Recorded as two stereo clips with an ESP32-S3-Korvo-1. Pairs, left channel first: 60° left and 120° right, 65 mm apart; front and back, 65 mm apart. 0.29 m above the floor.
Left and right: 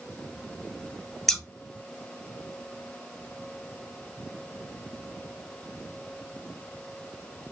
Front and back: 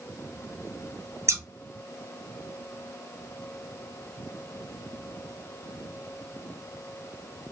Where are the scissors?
145° left, 0.6 m.